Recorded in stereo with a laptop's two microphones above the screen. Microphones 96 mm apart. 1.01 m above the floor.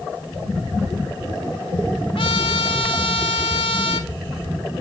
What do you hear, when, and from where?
2.1 s a trumpet: 65° left (ahead or behind), 1.7 m